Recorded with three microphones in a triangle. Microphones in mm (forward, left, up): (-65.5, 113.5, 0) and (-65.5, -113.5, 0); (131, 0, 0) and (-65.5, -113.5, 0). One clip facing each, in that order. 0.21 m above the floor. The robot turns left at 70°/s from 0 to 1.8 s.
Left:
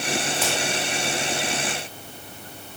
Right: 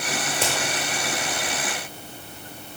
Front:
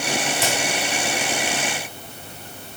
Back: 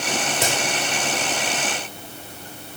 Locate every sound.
0.3 s a crack: 145° right, 4 m; by 0.5 s 160° right, 4 m